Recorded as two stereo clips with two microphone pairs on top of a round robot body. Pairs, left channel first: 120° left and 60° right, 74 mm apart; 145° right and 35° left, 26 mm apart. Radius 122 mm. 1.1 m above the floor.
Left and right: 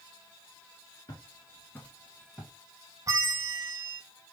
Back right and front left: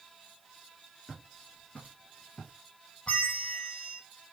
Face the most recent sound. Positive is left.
turn(degrees=-100)